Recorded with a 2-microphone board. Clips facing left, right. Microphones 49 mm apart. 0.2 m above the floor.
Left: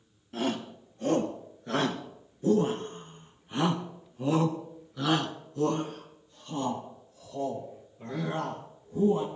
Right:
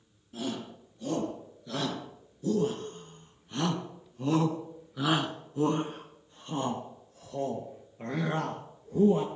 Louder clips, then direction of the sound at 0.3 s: Left 5 dB; 50° left (ahead or behind).